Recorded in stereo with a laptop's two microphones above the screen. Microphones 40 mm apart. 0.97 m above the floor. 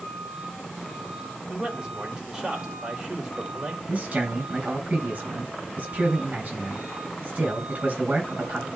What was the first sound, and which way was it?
A man speaking, 15° right (ahead or behind).